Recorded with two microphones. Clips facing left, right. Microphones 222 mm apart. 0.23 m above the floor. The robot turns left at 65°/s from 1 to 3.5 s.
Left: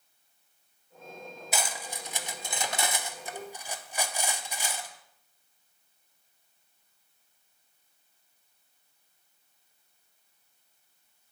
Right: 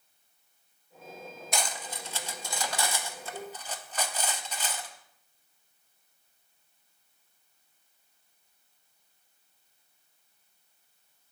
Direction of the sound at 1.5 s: 5° left (ahead or behind).